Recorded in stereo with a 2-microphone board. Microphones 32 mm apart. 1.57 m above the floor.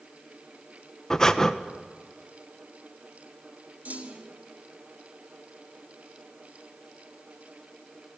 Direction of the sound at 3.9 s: 60° right (ahead or behind).